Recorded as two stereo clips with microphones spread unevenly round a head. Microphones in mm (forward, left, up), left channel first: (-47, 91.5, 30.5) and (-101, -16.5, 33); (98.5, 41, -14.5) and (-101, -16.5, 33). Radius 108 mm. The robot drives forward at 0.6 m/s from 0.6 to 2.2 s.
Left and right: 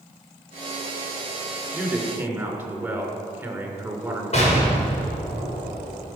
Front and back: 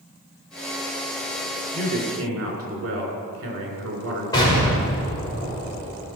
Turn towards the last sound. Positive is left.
turn(degrees=90)